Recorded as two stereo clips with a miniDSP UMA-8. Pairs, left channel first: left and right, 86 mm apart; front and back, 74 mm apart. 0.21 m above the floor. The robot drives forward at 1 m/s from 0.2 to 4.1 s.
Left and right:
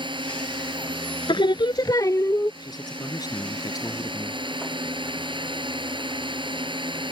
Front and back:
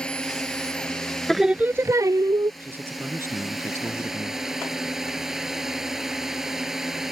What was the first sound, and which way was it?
A drone, 80° right.